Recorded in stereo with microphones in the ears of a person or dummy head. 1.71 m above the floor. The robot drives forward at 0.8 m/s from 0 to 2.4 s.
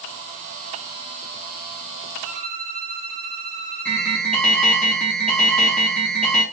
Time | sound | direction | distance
2.2 | a violin | 40° right (ahead or behind) | 1.5 m
3.9 | an alarm | 5° left (ahead or behind) | 2.5 m